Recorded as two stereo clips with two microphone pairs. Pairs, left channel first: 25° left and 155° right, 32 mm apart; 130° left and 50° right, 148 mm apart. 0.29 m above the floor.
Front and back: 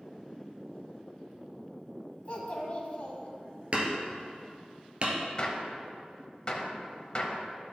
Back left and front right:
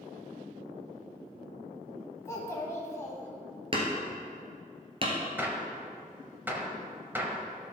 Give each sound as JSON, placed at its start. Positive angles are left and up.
{"t": 2.2, "sound": "a child speaking", "azimuth_deg": 65, "distance_m": 1.3}
{"t": 3.7, "sound": "hammering", "azimuth_deg": -100, "distance_m": 1.7}
{"t": 5.4, "sound": "a gunshot", "azimuth_deg": 15, "distance_m": 1.0}